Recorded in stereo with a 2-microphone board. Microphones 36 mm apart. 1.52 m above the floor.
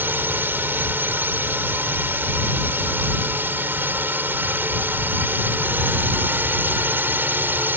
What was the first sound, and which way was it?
A drone, 65° right (ahead or behind).